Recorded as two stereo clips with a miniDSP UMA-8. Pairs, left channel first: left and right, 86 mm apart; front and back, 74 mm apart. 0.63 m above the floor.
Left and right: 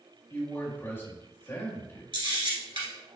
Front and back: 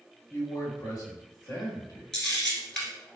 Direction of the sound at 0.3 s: 30° left.